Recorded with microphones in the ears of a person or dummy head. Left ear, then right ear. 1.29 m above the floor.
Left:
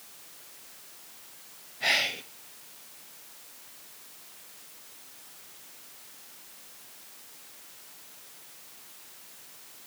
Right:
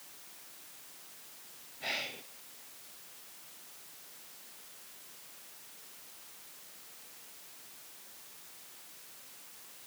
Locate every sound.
1.8 s whispering: 25° left (ahead or behind), 0.5 m